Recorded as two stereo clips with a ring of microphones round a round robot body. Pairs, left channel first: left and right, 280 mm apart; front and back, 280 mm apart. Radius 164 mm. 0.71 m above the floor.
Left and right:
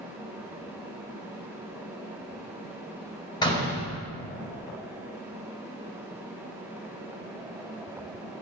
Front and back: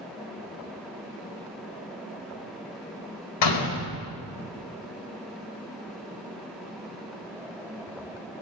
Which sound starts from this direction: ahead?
A door slam, at 3.4 s.